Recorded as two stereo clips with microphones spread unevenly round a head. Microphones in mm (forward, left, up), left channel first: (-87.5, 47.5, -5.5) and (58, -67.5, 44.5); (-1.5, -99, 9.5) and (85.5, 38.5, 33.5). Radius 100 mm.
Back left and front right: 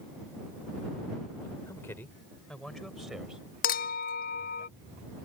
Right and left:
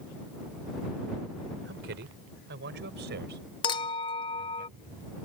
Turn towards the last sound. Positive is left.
turn(degrees=175)